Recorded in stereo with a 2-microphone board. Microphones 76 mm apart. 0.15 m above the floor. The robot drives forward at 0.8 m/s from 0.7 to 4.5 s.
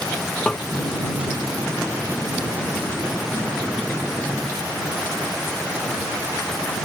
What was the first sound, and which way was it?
Tapping, 10° left (ahead or behind).